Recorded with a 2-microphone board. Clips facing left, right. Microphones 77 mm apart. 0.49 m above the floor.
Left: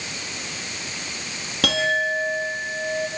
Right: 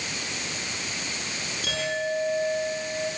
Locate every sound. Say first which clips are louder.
1.6 s a clink: left 7 dB; 75° left (ahead or behind), 8.5 m